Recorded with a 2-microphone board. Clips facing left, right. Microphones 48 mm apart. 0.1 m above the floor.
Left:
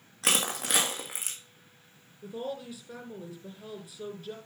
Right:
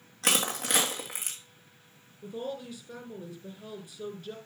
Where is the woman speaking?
5° left (ahead or behind), 2.5 m.